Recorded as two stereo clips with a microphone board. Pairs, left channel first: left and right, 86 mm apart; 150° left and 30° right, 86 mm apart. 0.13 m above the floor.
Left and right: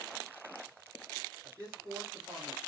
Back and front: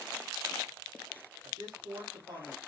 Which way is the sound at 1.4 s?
35° right.